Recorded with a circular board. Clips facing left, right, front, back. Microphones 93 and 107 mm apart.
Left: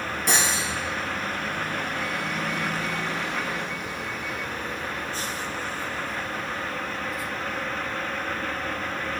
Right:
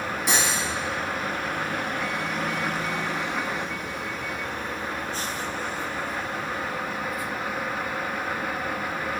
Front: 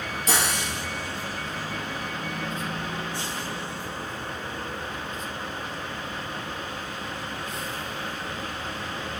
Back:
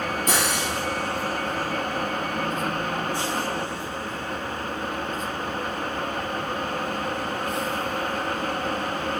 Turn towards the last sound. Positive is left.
turn(degrees=-170)